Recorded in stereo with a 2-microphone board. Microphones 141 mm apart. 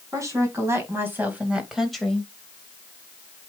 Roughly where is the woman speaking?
Right.